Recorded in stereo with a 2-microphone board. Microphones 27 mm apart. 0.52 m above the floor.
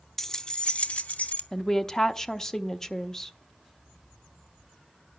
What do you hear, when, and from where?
0.2 s keys jangling: 10° left (ahead or behind), 0.5 m; by 1.4 s 70° left (ahead or behind), 0.9 m
1.5 s a woman speaking: 20° left (ahead or behind), 0.8 m